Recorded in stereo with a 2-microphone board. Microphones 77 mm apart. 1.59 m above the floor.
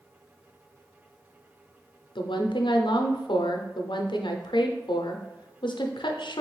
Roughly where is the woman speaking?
Left.